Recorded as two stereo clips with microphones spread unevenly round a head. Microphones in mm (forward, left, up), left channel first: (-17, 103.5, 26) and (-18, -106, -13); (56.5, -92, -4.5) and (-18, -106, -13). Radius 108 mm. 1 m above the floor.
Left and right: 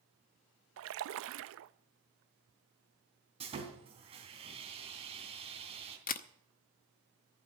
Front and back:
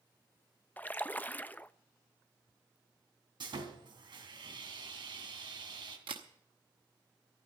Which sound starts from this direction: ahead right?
A splash, at 0.8 s.